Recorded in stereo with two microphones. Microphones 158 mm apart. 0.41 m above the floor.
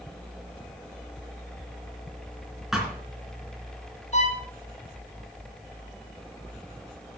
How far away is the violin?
About 2.5 m.